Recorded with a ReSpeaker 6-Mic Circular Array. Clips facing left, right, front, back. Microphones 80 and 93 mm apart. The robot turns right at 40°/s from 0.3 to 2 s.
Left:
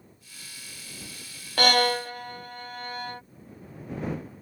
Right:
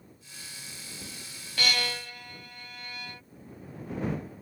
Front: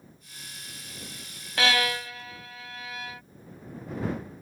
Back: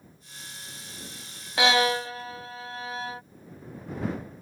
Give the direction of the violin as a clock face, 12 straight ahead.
8 o'clock.